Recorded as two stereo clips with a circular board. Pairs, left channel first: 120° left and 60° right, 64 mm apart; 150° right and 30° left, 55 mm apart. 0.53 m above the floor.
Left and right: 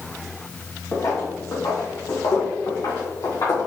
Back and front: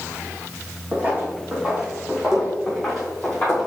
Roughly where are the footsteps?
Left.